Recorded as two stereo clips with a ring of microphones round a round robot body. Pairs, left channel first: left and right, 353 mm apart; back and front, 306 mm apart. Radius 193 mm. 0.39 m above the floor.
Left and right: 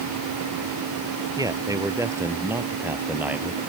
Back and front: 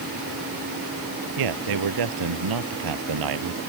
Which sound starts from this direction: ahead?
A man speaking, at 1.4 s.